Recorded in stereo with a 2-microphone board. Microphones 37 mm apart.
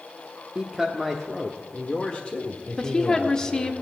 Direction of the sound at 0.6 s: 15° right (ahead or behind).